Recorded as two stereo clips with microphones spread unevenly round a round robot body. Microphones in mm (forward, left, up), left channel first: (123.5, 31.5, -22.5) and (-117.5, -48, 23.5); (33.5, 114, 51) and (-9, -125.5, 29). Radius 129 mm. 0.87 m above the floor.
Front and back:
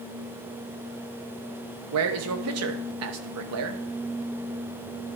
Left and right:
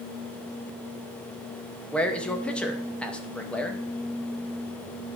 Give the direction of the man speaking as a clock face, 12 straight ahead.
6 o'clock.